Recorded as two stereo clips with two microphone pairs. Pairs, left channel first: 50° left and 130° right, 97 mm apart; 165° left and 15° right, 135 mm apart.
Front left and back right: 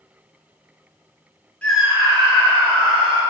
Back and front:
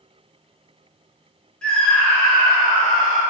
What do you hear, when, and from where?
1.6 s a scream: 95° left, 0.7 m; by 3.2 s 115° right, 2 m